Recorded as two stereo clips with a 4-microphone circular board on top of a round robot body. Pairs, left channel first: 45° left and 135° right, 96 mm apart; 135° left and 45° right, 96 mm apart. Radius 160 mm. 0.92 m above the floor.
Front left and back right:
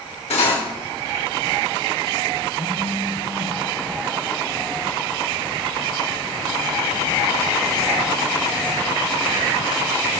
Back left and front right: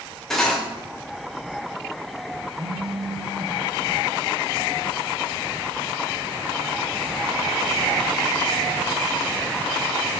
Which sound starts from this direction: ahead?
A phone buzzing, at 2.5 s.